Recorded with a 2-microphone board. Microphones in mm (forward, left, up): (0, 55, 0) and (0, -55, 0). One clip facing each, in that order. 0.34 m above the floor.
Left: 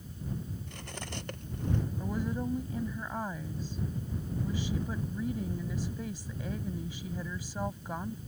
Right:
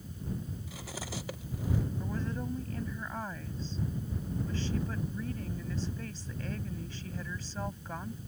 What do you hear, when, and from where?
0.7 s cutlery clinking: 5° right (ahead or behind)
2.0 s a woman speaking: 10° left (ahead or behind)